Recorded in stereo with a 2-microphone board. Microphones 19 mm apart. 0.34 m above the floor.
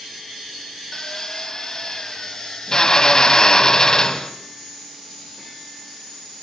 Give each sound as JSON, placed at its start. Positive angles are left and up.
{"t": 0.9, "sound": "a drill", "side_deg": 30, "distance_m": 1.8}